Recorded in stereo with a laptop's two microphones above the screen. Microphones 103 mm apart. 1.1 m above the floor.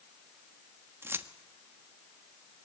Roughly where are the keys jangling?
Right.